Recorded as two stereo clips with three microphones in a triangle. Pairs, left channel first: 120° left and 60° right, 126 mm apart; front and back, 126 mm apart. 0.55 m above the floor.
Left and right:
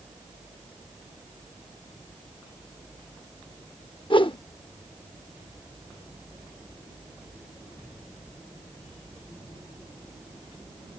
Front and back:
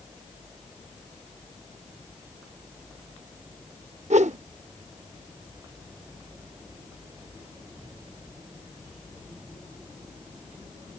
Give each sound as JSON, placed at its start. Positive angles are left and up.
{"t": 4.1, "sound": "a whoosh", "azimuth_deg": 165}